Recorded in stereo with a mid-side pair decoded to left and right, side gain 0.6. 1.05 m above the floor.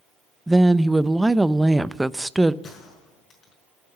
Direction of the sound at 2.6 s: 40° left.